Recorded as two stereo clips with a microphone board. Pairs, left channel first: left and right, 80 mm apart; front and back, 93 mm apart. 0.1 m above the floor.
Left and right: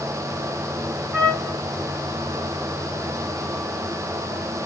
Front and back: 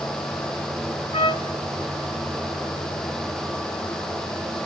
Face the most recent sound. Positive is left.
turn(degrees=-15)